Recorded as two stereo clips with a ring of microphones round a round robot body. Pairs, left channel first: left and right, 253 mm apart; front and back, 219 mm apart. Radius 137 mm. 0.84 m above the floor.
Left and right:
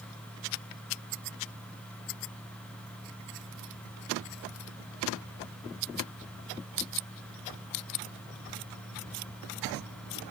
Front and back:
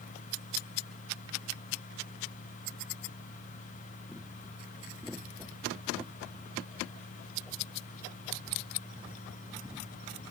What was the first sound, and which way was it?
Only background noise.